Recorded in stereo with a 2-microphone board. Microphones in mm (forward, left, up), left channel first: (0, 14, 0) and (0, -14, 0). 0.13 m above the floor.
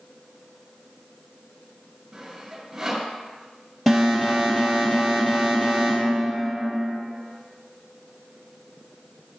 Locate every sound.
2.1 s sawing: 5° right (ahead or behind), 2 m
3.9 s an alarm: 10° left (ahead or behind), 3 m